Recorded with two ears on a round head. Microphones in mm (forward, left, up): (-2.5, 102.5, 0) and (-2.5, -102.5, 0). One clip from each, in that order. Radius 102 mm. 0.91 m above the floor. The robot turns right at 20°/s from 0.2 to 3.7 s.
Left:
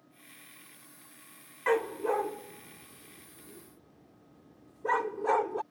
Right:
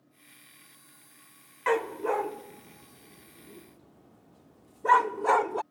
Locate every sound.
1.7 s a dog barking: 15° right (ahead or behind); by 5.6 s 30° right (ahead or behind)